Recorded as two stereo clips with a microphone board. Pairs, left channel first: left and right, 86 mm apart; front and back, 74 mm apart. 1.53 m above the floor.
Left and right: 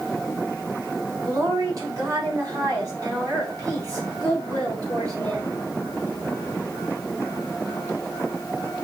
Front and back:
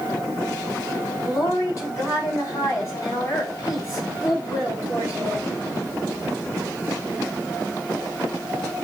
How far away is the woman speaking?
About 6.5 m.